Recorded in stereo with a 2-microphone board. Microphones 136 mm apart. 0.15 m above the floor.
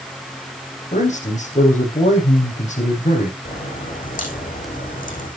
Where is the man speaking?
60° left (ahead or behind), 7.5 m.